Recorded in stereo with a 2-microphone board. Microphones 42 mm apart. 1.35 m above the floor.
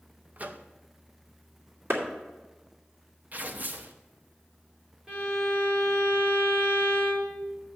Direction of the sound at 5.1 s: 20° right (ahead or behind).